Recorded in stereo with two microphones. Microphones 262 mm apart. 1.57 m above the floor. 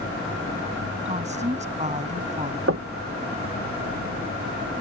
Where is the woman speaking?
25° right (ahead or behind).